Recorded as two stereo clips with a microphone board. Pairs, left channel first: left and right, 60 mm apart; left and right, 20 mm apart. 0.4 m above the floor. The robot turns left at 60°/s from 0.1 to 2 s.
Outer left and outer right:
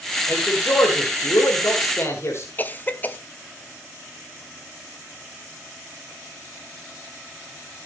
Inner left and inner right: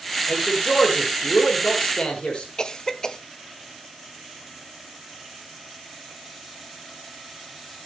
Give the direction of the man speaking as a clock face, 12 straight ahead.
7 o'clock.